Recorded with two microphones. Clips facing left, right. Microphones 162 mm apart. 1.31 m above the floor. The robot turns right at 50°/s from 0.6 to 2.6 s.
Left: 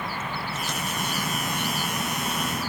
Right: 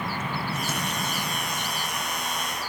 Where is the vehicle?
10° right; by 2.7 s 90° left.